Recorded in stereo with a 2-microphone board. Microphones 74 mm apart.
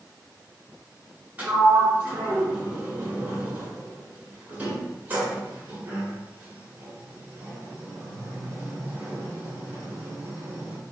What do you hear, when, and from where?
1.4 s a sliding door: 20° right (ahead or behind), 1.5 m